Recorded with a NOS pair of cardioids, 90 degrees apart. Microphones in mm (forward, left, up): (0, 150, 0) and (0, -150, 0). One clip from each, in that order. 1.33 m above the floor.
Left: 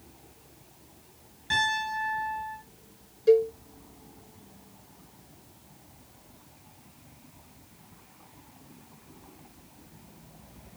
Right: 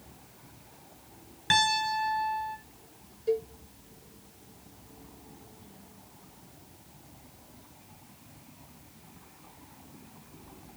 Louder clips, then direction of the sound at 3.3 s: Left 9 dB; 35° left.